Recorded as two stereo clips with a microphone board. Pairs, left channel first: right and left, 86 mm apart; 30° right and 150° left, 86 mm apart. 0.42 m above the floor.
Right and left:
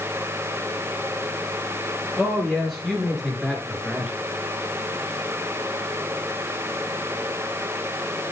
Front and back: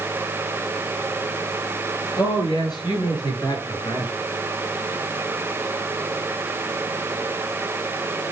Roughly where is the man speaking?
Ahead.